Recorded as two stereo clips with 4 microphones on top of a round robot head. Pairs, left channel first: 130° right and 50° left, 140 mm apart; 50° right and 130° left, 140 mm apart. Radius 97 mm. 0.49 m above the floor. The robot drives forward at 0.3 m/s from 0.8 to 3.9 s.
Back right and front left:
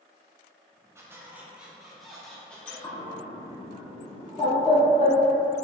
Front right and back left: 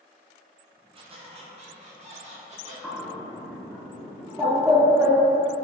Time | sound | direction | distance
0.9 | a squeak | 110° left | 0.7 m
2.8 | a bird | 120° right | 0.5 m